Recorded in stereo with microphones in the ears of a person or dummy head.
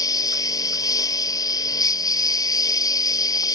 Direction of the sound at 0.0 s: 20° left (ahead or behind).